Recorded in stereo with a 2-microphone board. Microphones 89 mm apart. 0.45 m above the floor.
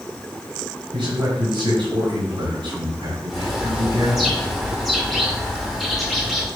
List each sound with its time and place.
0.9 s a man speaking: 70° right (ahead or behind), 3.5 m
3.3 s a bird: centre (ahead or behind), 1.6 m